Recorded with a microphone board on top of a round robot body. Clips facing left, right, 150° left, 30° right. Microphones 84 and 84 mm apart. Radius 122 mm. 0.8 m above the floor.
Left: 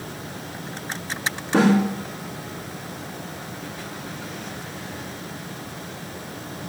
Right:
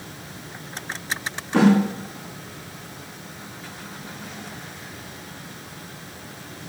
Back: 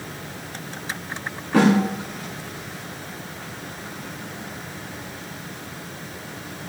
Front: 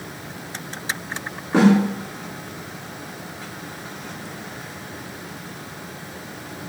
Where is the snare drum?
40° left, 1.9 m.